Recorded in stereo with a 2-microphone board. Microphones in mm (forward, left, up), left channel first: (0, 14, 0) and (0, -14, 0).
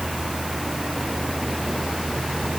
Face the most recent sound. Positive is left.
No sound to turn to.